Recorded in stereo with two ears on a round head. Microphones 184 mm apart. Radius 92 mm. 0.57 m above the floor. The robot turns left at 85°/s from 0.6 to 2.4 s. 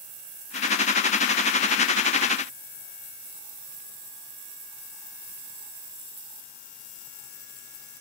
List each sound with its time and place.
Only background noise.